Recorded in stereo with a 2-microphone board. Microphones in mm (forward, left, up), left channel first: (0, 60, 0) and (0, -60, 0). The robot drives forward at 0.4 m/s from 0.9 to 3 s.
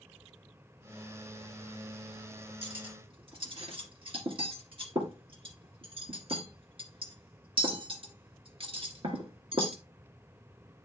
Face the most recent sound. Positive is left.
turn(degrees=-45)  # may be behind; listen again after turning